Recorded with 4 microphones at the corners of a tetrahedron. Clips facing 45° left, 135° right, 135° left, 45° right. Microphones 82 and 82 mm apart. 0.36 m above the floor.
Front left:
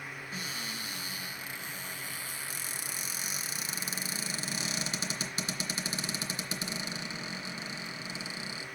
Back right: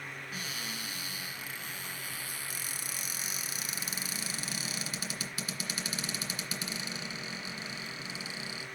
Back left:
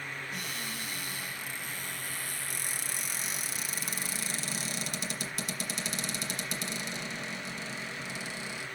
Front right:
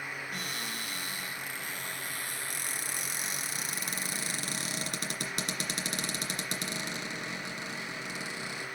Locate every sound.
0.3 s a cupboard door: 15° right, 2.5 m